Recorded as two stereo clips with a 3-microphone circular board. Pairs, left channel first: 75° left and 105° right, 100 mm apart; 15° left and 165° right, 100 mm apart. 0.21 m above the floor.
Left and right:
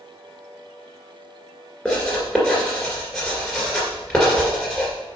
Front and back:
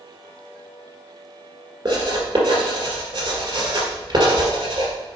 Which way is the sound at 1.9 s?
155° left.